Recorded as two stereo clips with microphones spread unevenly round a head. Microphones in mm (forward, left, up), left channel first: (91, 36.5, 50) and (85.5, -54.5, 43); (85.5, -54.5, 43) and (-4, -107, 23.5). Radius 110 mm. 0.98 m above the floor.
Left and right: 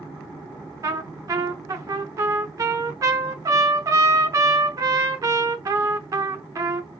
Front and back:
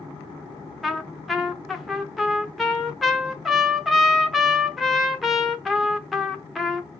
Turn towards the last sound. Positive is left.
turn(degrees=-50)